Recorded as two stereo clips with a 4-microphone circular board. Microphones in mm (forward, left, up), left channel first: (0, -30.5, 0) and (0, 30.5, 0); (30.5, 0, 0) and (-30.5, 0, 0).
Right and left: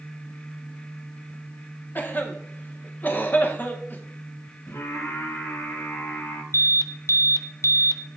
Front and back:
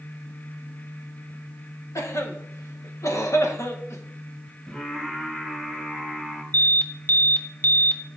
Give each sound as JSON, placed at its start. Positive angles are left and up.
{"t": 1.9, "sound": "a cough", "azimuth_deg": -35, "distance_m": 1.3}
{"t": 4.7, "sound": "singing", "azimuth_deg": -75, "distance_m": 4.0}
{"t": 6.5, "sound": "an alarm", "azimuth_deg": -60, "distance_m": 0.5}